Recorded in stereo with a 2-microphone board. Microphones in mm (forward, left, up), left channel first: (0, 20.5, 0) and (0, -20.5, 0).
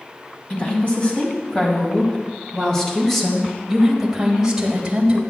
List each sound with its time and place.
0.5 s a woman speaking: 35° left (ahead or behind), 2.5 m; by 5.2 s 25° right (ahead or behind), 1.8 m